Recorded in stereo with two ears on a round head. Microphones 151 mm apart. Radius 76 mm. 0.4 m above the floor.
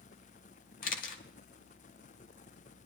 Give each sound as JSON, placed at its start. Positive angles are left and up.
{"t": 0.8, "sound": "a camera shutter", "side_deg": 60, "distance_m": 1.2}